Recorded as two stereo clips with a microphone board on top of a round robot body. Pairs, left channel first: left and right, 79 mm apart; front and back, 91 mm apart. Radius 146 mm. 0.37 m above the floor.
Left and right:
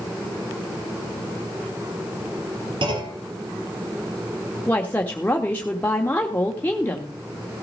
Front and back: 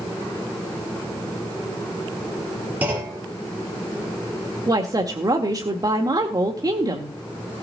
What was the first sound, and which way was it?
A clunk, 105° right.